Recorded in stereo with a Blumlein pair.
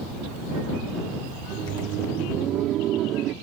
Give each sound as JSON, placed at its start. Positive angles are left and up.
{"t": 1.4, "sound": "laughter", "azimuth_deg": -30}